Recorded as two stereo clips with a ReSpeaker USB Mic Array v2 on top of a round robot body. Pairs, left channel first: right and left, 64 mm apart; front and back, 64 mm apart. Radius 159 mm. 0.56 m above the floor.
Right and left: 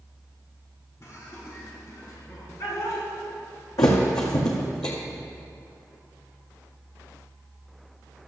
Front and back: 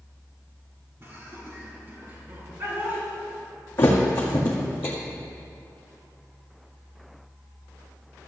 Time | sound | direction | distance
1.0 | laughter | 130° right | 4 m
3.8 | a thud | 60° right | 1.8 m